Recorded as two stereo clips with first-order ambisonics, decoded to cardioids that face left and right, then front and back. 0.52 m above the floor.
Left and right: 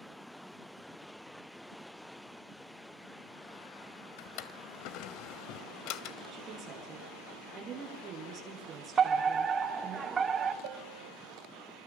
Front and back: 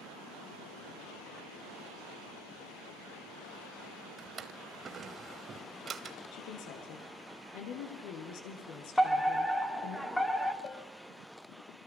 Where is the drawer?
115° left, 1.5 m.